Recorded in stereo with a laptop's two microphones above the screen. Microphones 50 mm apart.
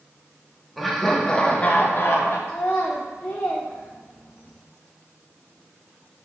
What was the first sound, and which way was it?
Laughter, centre (ahead or behind).